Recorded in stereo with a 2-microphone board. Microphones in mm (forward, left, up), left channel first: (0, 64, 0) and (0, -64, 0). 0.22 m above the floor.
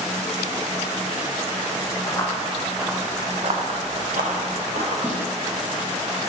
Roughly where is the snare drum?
Centre.